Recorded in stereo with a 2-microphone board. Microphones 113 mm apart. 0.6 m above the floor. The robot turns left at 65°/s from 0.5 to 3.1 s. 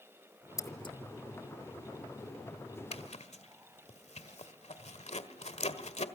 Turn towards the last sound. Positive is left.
turn(degrees=75)  # may be behind; listen again after turning